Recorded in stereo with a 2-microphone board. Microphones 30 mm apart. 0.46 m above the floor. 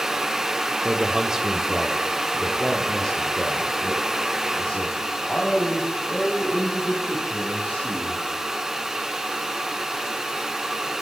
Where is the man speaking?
30° right (ahead or behind), 1.1 m; by 8.2 s 40° left (ahead or behind), 4.5 m.